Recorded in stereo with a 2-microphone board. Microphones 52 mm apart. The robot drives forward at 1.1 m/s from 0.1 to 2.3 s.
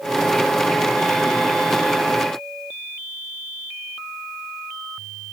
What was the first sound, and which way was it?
Only background noise.